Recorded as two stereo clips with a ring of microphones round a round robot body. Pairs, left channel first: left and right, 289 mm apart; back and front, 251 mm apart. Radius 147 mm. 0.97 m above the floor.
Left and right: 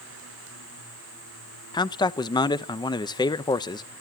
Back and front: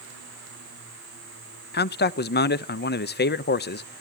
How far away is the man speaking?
About 1.0 m.